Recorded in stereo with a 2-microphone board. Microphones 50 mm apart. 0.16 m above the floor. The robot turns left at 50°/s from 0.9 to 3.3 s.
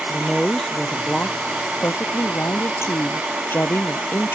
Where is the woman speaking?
165° left; by 4.4 s 45° left.